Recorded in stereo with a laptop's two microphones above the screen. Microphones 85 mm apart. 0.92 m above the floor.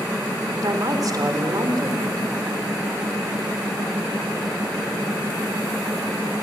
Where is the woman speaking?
50° right (ahead or behind), 3 m.